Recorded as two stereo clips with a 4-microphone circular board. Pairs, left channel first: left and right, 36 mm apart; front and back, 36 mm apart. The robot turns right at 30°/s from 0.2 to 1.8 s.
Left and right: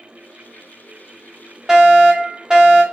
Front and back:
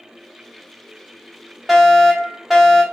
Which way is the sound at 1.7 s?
105° right.